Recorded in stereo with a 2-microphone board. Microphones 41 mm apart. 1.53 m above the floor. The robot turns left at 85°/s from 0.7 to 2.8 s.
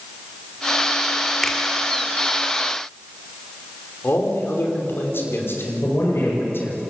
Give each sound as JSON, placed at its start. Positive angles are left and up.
{"t": 1.4, "sound": "a finger snap", "side_deg": 5, "distance_m": 3.0}
{"t": 4.0, "sound": "a man speaking", "side_deg": 65, "distance_m": 5.5}
{"t": 5.8, "sound": "a man speaking", "side_deg": 85, "distance_m": 7.5}